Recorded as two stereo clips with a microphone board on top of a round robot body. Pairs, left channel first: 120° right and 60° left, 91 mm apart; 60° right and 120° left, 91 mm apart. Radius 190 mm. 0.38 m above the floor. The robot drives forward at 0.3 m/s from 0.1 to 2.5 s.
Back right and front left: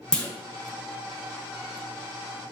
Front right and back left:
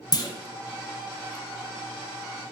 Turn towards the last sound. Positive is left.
turn(degrees=-145)